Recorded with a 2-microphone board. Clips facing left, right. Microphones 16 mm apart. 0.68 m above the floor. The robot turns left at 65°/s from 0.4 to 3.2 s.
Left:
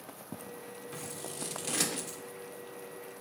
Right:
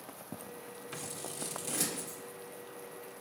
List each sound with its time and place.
0.9 s scissors: 15° right (ahead or behind), 1.8 m; by 2.2 s 55° left (ahead or behind), 1.8 m